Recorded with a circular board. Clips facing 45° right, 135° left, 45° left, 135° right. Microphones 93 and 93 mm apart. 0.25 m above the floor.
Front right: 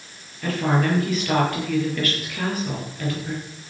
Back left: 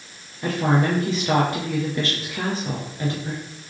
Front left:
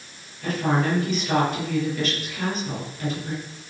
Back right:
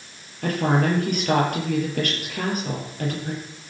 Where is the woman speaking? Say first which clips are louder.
Back left 1 dB, back right 2 dB; 160° right, 5.5 m.